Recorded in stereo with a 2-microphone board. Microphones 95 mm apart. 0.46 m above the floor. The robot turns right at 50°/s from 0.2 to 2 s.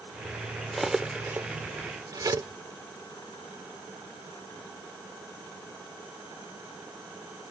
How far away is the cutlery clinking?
About 0.7 m.